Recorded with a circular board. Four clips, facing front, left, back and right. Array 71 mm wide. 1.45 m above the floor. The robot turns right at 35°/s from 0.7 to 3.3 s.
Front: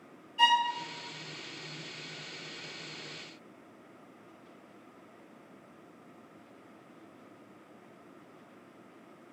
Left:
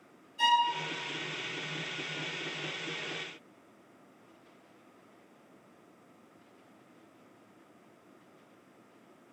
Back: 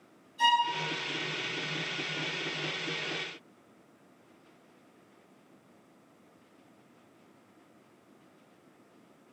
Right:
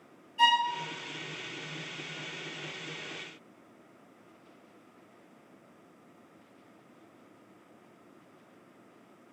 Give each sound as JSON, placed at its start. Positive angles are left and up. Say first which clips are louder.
{"t": 0.4, "sound": "a violin", "louder": "right 1 dB, even", "azimuth_deg": -35, "distance_m": 0.9}